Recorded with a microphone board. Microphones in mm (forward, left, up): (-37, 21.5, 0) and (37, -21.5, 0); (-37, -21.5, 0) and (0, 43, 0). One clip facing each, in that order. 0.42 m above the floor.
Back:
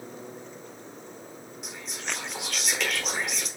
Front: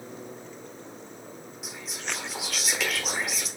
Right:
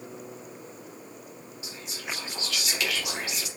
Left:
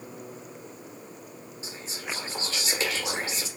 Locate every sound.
1.6 s whispering: 55° left, 0.9 m